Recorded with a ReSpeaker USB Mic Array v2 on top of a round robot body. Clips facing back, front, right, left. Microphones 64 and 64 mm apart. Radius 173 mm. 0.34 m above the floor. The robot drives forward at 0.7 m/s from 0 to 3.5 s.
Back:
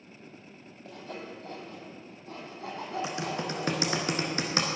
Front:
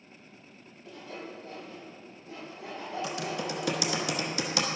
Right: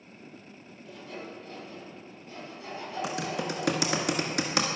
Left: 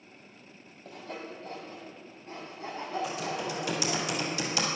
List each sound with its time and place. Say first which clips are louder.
0.8 s sawing: back 1 dB, left 1 dB; 135° left, 2.5 m; by 4.0 s 155° left, 4 m
3.0 s typing on a keyboard: front 1 dB, right 1 dB; 110° right, 1.2 m; by 4.7 s 125° right, 1.3 m